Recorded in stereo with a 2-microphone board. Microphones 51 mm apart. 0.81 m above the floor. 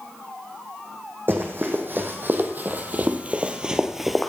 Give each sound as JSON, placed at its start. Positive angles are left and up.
{"t": 1.3, "sound": "running footsteps", "side_deg": -45, "distance_m": 1.7}